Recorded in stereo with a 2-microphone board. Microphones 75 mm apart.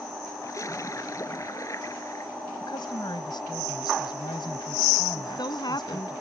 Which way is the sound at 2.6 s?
80° left.